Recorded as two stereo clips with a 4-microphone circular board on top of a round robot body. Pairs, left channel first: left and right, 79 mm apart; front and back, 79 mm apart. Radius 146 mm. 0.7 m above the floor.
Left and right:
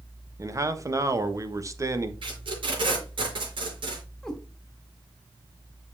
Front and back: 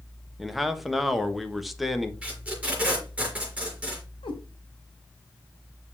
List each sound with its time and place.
0.4 s a man speaking: 90° right, 1.4 m
2.2 s tape being pulled: 105° right, 5 m
4.2 s a cat meowing: 5° left, 1.8 m